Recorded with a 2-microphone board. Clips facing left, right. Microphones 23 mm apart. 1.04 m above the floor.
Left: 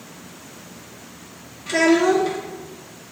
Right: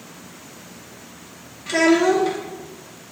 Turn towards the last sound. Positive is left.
turn(degrees=-5)  # may be behind; listen again after turning